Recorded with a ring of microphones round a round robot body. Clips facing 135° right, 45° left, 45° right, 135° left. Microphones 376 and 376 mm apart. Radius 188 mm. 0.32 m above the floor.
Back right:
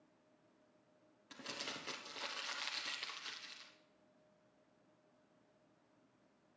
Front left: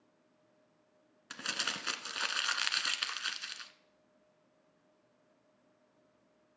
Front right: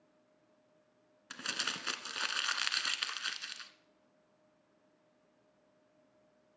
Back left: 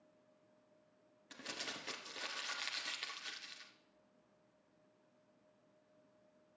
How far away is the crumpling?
About 1.2 m.